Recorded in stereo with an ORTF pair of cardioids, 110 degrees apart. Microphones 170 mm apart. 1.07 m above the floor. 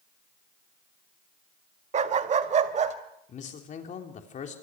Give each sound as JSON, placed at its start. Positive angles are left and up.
{"t": 1.9, "sound": "a dog barking", "azimuth_deg": -45, "distance_m": 1.5}
{"t": 3.3, "sound": "a man speaking", "azimuth_deg": 45, "distance_m": 3.5}